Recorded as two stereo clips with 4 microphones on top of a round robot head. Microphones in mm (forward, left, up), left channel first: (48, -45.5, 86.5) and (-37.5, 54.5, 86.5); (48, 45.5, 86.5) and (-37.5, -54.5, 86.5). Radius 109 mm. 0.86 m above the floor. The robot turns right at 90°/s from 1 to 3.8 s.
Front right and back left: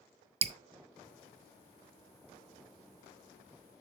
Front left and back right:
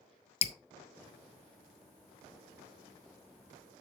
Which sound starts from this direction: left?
Dripping, at 0.4 s.